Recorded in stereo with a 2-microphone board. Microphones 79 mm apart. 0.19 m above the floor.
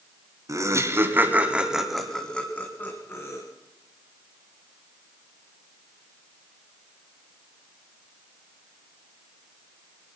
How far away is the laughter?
About 2.0 m.